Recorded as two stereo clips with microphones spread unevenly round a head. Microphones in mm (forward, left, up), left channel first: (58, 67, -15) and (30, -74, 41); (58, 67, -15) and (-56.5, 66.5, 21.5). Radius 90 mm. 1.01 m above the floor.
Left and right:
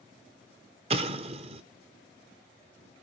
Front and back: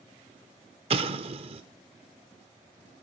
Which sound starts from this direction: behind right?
An explosion, at 0.9 s.